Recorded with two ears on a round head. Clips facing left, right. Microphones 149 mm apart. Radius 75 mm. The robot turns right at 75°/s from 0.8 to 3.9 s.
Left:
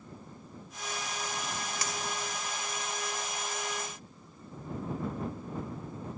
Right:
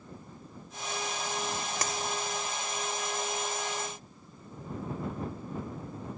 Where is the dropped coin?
45° right (ahead or behind); by 2.0 s 60° right (ahead or behind).